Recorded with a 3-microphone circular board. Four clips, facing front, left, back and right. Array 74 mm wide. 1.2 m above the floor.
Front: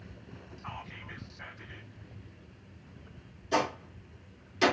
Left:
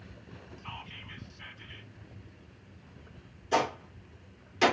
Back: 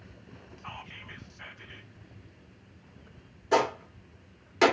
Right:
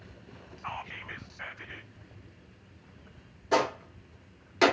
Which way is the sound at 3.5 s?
140° right.